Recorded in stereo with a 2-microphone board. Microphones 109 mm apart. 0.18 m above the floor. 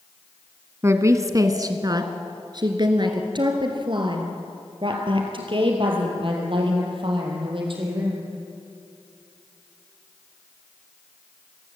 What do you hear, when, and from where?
0.8 s a woman speaking: 25° right (ahead or behind), 1.2 m; by 8.2 s 55° right (ahead or behind), 5 m